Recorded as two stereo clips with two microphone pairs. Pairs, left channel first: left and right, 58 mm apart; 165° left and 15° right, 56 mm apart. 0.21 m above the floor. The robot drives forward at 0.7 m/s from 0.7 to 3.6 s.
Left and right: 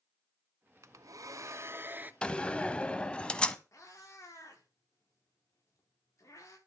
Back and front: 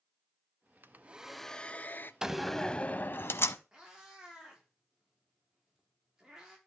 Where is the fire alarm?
I don't hear a fire alarm.